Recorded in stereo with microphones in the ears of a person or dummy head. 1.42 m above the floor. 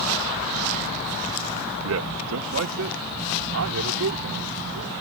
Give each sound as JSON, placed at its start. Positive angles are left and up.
{"t": 1.9, "sound": "a man speaking", "side_deg": -80}